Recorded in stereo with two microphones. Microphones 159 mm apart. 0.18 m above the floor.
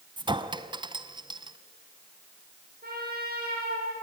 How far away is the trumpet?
About 7.5 m.